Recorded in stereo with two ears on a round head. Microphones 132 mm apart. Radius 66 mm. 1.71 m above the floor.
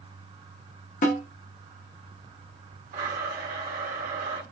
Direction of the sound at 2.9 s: 55° right (ahead or behind).